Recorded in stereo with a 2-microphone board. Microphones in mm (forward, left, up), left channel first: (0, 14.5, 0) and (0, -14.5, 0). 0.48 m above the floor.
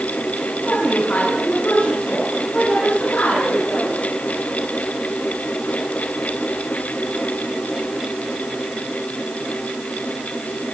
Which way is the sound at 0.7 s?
75° left (ahead or behind).